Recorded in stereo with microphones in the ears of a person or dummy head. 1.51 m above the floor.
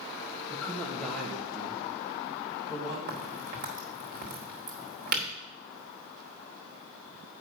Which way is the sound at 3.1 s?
45° right (ahead or behind).